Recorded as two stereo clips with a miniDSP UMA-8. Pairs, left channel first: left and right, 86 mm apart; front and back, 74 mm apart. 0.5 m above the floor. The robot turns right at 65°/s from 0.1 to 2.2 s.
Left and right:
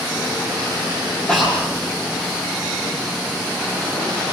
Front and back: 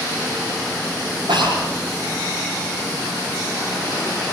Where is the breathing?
170° left, 8 m; by 1.7 s 165° right, 8 m.